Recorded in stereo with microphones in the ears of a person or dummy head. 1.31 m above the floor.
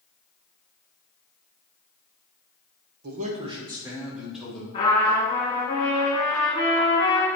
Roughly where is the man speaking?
Right.